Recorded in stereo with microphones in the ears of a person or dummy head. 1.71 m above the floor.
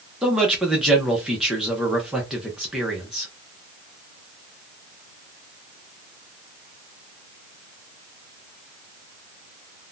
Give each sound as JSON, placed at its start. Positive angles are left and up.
{"t": 0.2, "sound": "a man speaking", "side_deg": 0, "distance_m": 0.8}